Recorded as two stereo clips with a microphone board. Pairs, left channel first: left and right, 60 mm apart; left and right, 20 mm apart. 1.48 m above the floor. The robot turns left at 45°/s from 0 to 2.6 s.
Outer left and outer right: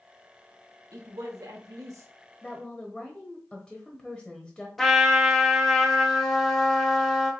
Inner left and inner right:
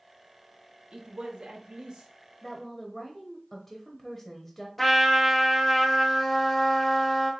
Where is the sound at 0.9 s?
75° right, 1.2 m; by 2.1 s 125° right, 1.2 m.